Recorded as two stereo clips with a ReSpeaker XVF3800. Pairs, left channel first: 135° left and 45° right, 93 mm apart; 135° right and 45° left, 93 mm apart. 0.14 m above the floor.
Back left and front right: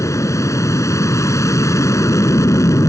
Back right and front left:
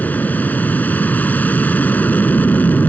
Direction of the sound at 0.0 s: 165° left.